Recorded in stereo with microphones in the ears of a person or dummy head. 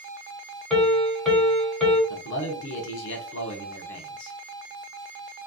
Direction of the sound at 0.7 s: Centre (ahead or behind).